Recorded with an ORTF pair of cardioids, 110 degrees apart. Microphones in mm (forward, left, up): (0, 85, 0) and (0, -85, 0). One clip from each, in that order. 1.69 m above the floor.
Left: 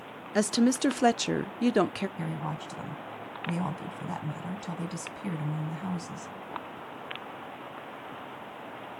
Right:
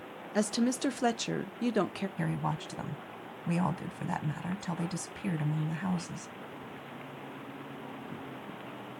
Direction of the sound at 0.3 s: 25° left.